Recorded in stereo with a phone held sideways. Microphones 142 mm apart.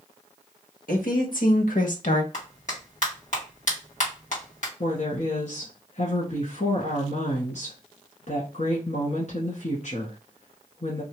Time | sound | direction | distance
0.9 | a woman speaking | 80° left | 1.3 m
2.3 | a clap | 60° left (ahead or behind) | 1.7 m
4.8 | a woman speaking | 55° left (ahead or behind) | 1.2 m